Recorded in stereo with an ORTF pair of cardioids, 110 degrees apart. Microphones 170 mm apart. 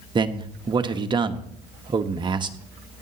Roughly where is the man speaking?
Ahead right.